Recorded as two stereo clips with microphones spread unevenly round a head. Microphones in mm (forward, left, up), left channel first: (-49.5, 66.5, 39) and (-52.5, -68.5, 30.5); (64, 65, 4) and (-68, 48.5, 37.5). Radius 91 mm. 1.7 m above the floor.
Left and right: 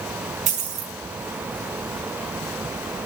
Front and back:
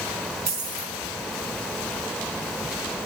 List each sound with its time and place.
0.5 s a dropped coin: 125° right, 4.5 m